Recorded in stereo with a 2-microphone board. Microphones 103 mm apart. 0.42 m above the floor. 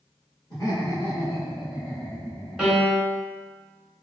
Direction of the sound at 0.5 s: 35° left (ahead or behind).